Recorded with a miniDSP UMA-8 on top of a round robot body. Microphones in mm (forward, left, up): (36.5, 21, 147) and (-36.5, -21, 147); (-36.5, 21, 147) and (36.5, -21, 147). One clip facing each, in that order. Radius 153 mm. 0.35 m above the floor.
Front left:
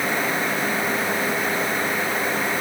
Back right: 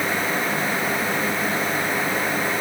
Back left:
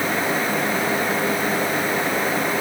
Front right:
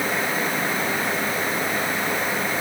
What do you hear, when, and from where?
Only background noise.